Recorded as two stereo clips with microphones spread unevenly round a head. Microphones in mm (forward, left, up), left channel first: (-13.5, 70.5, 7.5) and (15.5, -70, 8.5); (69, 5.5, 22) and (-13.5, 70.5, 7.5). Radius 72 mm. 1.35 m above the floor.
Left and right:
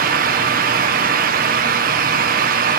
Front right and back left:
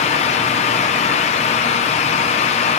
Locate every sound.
0.0 s a fan: 65° right, 1.3 m